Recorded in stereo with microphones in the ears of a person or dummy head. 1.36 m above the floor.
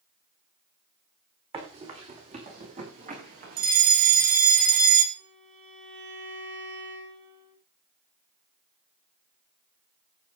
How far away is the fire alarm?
About 2 m.